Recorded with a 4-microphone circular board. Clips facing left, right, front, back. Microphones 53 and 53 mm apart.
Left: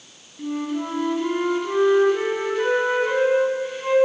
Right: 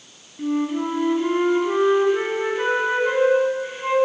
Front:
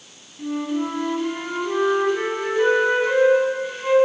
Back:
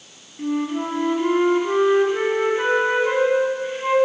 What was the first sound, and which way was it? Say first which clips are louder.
A flute: right 4 dB, back 1 dB; 140° right.